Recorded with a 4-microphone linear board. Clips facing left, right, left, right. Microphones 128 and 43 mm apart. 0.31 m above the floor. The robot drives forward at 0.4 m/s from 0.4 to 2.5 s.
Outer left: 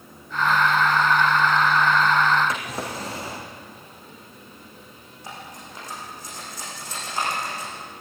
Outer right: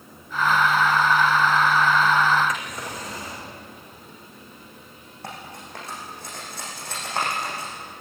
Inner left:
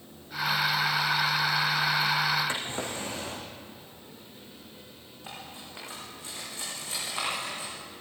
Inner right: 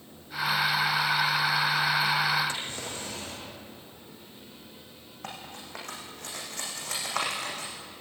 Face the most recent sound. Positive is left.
turn(degrees=-65)  # may be behind; listen again after turning